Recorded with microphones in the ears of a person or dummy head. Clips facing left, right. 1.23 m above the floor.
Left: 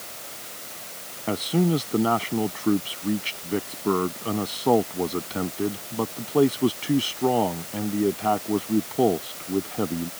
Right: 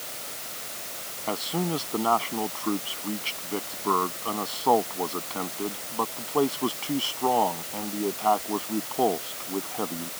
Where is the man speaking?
25° left (ahead or behind).